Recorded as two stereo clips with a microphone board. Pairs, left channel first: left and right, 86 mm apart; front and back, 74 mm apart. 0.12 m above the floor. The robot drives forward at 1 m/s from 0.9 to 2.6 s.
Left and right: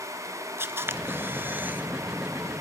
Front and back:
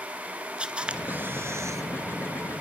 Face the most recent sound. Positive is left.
turn(degrees=-165)